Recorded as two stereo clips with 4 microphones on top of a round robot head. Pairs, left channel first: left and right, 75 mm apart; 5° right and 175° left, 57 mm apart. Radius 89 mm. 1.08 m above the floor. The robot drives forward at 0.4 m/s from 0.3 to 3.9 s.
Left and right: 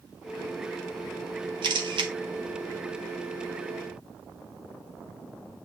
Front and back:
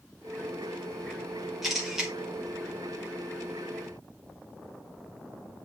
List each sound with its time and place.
1.6 s a camera shutter: 95° right, 1.7 m; by 2.1 s 105° right, 1.8 m